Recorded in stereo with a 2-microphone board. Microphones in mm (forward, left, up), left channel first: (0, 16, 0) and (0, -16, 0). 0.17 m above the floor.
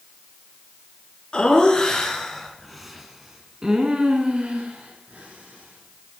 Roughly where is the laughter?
Left.